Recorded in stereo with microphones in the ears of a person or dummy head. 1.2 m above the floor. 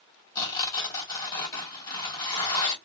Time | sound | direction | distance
0.3 | tearing paper | 20° left (ahead or behind) | 1.6 m